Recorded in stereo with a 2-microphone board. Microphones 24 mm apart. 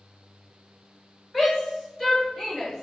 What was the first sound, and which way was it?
A shout, 10° left (ahead or behind).